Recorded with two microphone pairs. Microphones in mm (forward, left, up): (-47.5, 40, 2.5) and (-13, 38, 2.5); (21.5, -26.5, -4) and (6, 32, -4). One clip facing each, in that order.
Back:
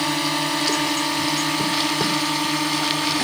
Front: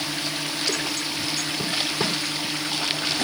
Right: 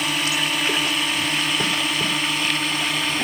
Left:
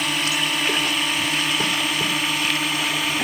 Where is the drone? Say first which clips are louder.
Back 6 dB, even; 165° right; by 3.2 s 170° right.